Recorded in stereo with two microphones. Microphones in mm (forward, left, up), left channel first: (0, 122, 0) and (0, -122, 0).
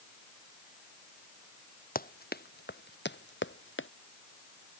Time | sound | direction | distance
1.9 | running footsteps | 40° left (ahead or behind) | ?